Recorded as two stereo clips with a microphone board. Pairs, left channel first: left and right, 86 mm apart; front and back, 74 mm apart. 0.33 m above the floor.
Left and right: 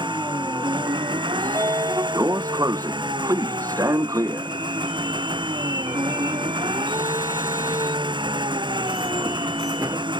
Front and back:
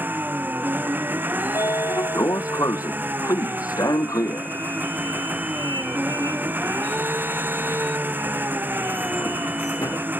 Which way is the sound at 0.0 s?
115° right.